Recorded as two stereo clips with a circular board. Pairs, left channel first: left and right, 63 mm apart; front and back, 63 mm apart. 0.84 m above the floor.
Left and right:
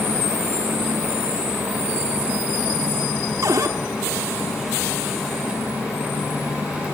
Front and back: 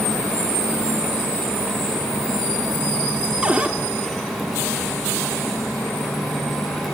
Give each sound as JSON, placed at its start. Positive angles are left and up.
{"t": 3.4, "sound": "a cupboard door", "azimuth_deg": -110, "distance_m": 1.6}